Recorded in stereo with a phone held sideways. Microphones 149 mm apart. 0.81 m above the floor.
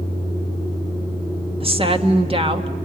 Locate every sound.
1.6 s a woman speaking: 40° right (ahead or behind), 1.4 m